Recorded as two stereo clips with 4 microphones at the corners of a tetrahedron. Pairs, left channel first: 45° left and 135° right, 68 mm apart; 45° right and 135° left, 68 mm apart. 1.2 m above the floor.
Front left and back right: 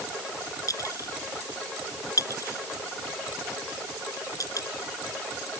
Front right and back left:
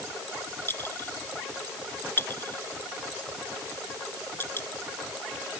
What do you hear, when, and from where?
0.7 s a clink: 10° left